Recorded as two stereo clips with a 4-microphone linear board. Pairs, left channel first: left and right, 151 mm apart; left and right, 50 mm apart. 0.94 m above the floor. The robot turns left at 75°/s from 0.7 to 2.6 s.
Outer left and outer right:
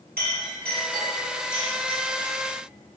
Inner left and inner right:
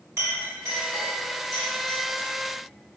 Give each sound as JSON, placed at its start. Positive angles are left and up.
{"t": 0.2, "sound": "a clink", "side_deg": -70, "distance_m": 1.9}